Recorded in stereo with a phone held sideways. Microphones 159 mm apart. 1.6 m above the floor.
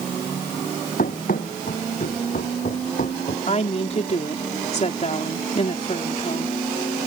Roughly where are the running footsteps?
Left.